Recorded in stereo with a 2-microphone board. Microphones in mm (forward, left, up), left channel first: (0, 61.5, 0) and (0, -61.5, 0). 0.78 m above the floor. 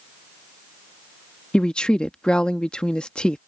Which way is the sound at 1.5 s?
5° left (ahead or behind).